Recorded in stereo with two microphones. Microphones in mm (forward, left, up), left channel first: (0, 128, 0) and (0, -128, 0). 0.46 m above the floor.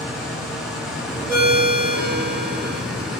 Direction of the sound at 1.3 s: 5° right (ahead or behind).